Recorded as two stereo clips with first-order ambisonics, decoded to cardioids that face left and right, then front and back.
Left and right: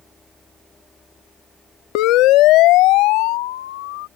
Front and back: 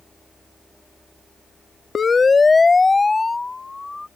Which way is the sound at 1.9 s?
70° left.